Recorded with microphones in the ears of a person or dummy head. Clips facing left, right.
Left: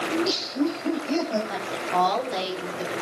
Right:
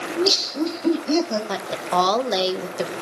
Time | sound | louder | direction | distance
0.1 | laughter | right 5 dB | 65° right (ahead or behind) | 3.5 m
1.5 | a woman speaking | right 3 dB | 70° right (ahead or behind) | 1.9 m